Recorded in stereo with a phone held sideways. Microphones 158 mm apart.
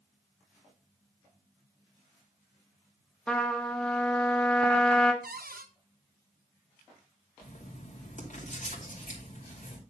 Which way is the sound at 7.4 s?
55° left (ahead or behind).